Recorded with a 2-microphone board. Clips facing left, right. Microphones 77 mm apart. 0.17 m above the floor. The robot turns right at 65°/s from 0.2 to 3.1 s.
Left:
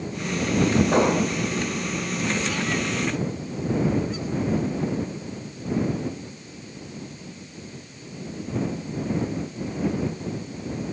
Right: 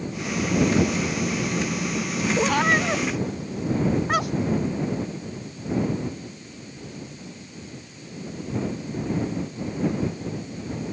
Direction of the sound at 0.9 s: 65° left (ahead or behind).